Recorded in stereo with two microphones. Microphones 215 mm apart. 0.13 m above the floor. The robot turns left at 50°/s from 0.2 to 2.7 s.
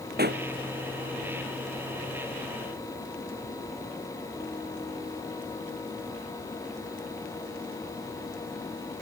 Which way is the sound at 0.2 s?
45° right (ahead or behind).